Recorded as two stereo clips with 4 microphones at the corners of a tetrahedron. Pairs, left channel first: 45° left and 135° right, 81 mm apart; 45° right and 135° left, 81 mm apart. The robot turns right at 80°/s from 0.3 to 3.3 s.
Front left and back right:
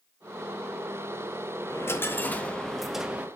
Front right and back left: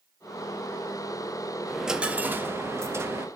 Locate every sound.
1.7 s a dropped coin: 40° left, 0.6 m; by 3.3 s 170° left, 0.6 m